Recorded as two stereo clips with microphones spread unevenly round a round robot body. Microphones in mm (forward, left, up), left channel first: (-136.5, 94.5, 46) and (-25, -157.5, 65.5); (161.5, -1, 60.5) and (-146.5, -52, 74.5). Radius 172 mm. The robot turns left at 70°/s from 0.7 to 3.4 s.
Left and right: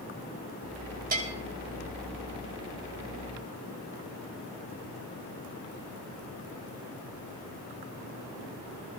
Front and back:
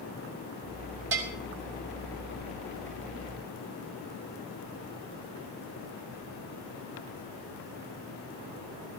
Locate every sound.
1.1 s a bell: 125° right, 4.5 m; by 1.3 s 140° right, 4.5 m